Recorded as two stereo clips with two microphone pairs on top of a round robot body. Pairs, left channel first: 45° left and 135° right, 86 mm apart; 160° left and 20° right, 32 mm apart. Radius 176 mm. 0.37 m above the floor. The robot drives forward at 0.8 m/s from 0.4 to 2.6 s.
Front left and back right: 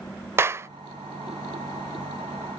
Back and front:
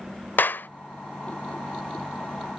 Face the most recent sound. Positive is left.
turn(degrees=175)